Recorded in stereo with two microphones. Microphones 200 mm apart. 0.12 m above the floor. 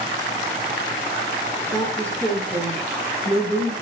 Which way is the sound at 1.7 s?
20° left (ahead or behind).